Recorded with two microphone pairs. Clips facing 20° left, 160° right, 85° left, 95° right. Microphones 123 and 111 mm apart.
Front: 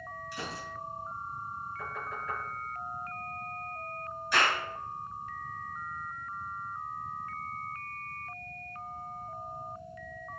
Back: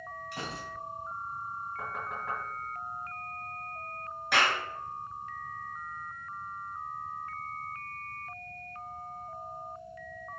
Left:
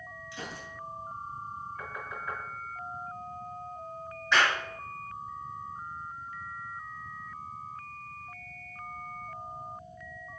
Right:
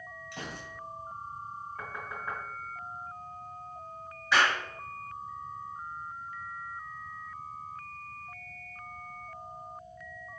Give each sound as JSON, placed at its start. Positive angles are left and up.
{"t": 0.3, "sound": "a gunshot", "azimuth_deg": -125, "distance_m": 2.5}
{"t": 1.8, "sound": "knocking", "azimuth_deg": -155, "distance_m": 3.5}
{"t": 4.3, "sound": "a clap", "azimuth_deg": 180, "distance_m": 4.0}